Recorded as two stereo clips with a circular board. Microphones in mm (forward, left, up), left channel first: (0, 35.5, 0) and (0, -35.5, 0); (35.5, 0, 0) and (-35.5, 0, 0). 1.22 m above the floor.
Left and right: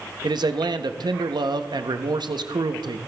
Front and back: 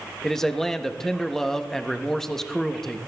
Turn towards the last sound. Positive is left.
turn(degrees=-85)